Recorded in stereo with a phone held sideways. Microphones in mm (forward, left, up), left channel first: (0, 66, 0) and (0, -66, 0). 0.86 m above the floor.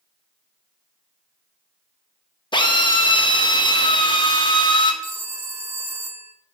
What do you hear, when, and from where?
2.5 s a drill: 35° left (ahead or behind), 0.8 m
5.0 s a phone ringing: 20° right (ahead or behind), 0.6 m